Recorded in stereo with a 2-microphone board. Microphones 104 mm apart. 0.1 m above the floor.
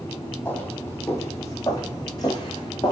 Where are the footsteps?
20° left (ahead or behind), 3.5 m; by 2.9 s 45° left (ahead or behind), 4 m.